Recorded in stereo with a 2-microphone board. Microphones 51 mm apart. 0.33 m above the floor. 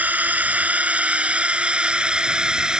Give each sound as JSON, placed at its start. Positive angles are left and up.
{"t": 0.0, "sound": "a drone", "side_deg": -35}